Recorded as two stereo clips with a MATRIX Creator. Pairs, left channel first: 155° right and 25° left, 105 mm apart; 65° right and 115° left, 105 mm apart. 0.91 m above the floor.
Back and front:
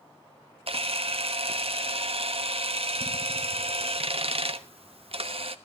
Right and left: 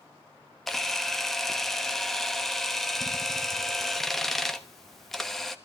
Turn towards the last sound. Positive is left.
turn(degrees=20)